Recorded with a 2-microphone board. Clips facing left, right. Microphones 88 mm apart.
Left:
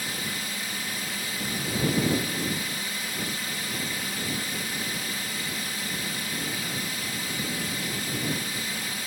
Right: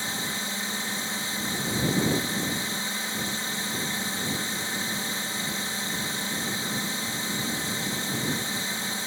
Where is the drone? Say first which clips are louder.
Right 1 dB; 30° right (ahead or behind).